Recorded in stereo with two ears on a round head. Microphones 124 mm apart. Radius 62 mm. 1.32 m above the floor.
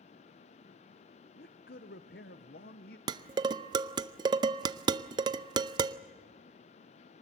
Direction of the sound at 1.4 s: 80° left.